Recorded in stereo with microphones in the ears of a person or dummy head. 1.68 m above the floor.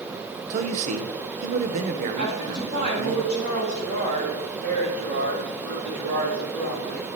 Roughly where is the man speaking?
Right.